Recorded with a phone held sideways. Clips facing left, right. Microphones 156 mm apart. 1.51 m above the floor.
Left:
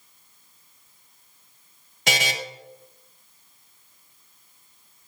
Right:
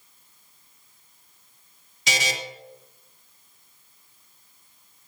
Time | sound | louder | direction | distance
2.1 | a buzzer | left 2 dB | 60° left (ahead or behind) | 1.1 m